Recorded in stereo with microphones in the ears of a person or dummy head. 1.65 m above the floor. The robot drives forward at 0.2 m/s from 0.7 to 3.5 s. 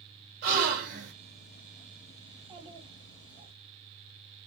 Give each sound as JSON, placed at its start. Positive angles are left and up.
{"t": 0.4, "sound": "a gasp", "side_deg": -65, "distance_m": 1.1}
{"t": 2.3, "sound": "a child speaking", "side_deg": -25, "distance_m": 0.9}